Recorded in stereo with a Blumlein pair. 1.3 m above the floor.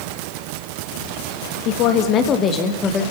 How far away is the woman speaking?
About 2.5 m.